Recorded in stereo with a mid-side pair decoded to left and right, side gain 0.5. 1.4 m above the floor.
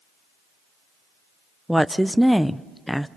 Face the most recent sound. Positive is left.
turn(degrees=0)